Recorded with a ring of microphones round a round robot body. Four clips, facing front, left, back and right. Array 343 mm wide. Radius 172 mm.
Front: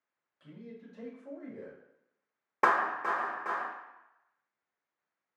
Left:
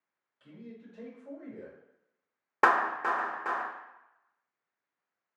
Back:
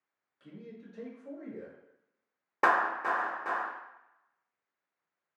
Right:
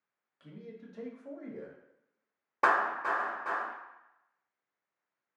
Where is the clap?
85° left, 1.0 m.